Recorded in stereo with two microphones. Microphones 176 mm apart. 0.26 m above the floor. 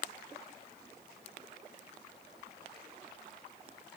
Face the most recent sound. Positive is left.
No sound to turn to.